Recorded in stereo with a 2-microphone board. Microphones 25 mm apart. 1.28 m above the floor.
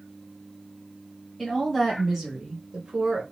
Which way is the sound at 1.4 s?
5° right (ahead or behind).